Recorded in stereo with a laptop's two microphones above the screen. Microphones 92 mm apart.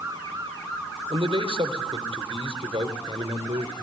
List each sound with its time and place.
1.1 s a man speaking: 80° right, 3.5 m